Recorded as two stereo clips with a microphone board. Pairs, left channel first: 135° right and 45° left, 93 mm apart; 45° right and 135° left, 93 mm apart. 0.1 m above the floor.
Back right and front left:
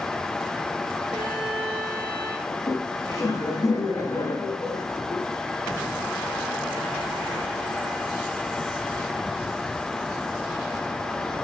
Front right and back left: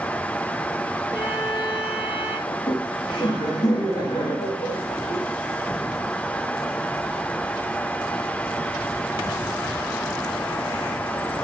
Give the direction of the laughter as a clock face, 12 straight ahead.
2 o'clock.